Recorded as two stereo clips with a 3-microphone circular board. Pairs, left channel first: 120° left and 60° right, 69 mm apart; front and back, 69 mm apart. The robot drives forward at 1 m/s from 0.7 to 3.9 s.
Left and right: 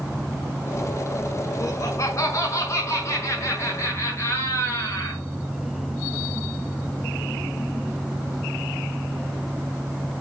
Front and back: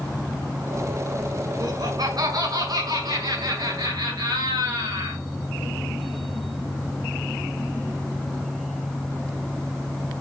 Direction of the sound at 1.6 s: 160° left.